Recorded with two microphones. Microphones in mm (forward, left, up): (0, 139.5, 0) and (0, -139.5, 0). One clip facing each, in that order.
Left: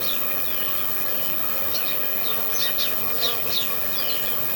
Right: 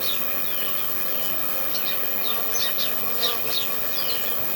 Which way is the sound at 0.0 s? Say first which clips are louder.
Left 1 dB; 55° left (ahead or behind).